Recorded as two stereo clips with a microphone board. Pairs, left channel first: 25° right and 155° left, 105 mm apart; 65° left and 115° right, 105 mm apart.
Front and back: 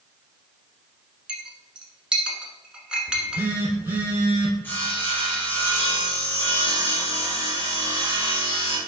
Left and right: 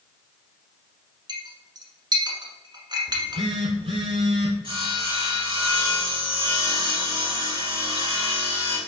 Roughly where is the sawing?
Right.